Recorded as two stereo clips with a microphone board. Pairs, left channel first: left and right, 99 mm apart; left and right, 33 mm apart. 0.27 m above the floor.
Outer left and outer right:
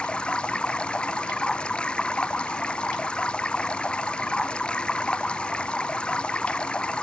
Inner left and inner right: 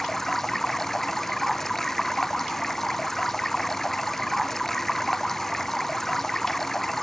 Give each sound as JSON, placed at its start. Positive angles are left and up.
{"t": 0.0, "sound": "running water", "side_deg": 10}